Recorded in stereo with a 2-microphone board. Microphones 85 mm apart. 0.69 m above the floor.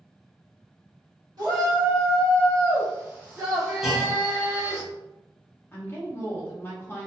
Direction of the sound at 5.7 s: 25° left (ahead or behind).